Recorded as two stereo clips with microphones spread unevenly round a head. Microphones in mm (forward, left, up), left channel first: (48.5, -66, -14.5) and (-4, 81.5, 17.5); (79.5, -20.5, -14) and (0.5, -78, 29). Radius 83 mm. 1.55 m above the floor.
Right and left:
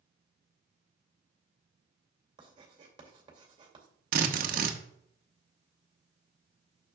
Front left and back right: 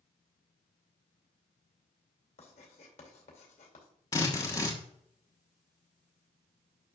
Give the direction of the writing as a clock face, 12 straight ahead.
10 o'clock.